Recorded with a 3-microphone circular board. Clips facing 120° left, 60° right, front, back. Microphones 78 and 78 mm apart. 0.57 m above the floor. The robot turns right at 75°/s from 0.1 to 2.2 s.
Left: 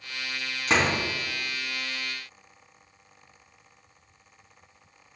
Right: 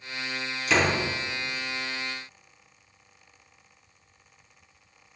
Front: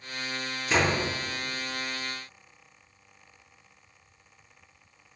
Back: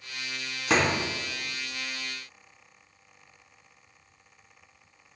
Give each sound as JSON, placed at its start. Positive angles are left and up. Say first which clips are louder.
{"t": 0.7, "sound": "a door slam", "louder": "even, back 1 dB", "azimuth_deg": 165, "distance_m": 4.0}